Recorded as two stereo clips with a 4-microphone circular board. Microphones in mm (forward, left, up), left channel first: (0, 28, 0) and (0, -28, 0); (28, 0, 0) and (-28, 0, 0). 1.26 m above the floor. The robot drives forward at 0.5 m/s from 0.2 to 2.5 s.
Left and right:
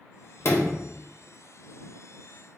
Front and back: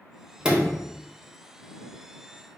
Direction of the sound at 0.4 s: 110° left.